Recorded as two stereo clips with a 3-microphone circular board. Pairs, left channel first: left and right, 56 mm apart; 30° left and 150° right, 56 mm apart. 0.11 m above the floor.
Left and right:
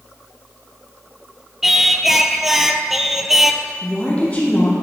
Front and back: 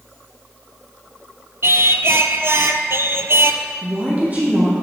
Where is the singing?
175° right, 0.5 m.